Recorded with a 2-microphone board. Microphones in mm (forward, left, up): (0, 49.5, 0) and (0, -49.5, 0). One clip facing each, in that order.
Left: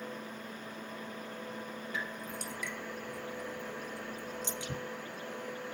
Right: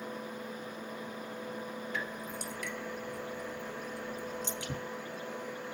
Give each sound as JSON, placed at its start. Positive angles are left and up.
{"t": 1.9, "sound": "dripping", "side_deg": -60, "distance_m": 2.5}